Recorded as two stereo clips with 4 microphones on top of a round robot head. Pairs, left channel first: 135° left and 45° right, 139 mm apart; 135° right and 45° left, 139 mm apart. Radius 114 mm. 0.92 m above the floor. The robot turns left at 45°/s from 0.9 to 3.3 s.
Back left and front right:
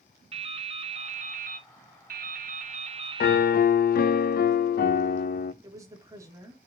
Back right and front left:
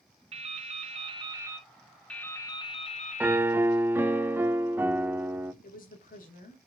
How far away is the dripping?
About 1.1 m.